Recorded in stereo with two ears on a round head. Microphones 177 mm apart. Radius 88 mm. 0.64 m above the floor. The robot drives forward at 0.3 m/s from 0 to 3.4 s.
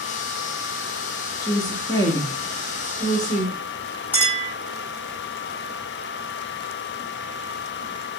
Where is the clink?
10° left (ahead or behind), 1.7 m.